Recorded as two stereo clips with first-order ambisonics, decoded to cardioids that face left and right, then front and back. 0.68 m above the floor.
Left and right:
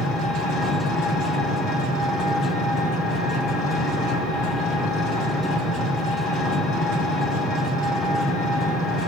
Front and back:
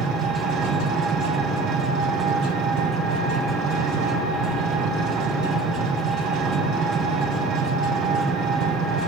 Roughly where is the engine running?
Behind left.